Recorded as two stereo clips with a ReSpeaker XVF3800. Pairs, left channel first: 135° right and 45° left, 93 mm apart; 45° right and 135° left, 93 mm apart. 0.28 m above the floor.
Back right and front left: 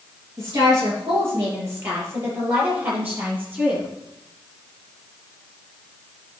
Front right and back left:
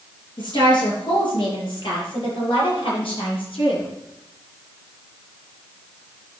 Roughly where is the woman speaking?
Ahead.